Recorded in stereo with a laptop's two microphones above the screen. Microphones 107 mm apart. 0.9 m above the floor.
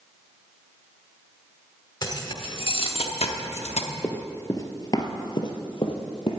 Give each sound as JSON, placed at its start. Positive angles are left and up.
{"t": 2.0, "sound": "keys jangling", "side_deg": 40, "distance_m": 1.7}
{"t": 4.0, "sound": "running footsteps", "side_deg": 15, "distance_m": 1.0}